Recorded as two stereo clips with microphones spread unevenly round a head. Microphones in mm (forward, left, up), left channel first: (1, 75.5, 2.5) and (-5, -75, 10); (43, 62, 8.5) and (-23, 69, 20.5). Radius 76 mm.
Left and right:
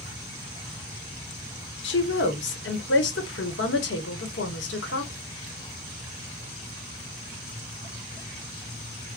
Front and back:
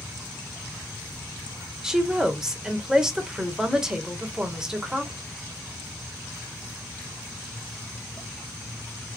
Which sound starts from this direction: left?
A woman speaking, at 1.8 s.